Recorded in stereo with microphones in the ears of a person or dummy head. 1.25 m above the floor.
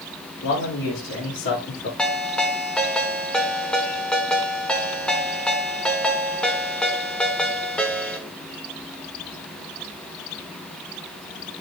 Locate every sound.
0.4 s a man speaking: 80° left, 3 m; by 1.9 s 60° left (ahead or behind), 2.5 m
2.0 s a ringtone: 5° left (ahead or behind), 1.3 m